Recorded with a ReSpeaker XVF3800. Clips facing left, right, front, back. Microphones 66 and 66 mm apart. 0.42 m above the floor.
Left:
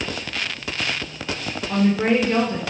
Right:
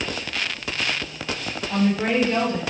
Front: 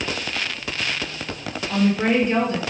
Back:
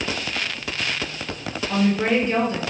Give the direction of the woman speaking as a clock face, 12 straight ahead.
9 o'clock.